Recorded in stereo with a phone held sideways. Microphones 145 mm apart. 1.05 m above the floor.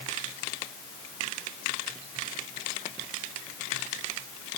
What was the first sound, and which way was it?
Only background noise.